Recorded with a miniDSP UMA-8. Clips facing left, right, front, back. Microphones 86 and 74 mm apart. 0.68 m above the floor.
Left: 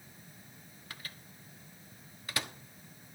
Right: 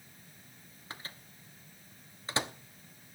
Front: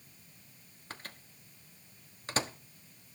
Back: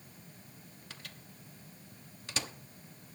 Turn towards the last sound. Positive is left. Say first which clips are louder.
# right 3 dB, front 6 dB
turn(degrees=-35)